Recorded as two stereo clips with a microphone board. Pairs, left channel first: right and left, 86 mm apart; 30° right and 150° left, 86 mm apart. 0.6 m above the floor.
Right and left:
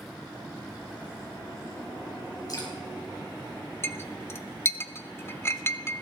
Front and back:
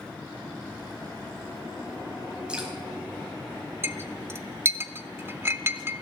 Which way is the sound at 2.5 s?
130° right.